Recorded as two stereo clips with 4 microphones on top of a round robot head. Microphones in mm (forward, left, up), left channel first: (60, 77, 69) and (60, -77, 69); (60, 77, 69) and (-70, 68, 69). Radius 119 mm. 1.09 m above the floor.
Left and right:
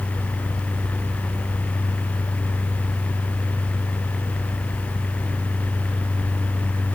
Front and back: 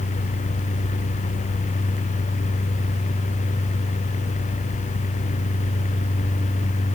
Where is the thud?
No thud in this recording.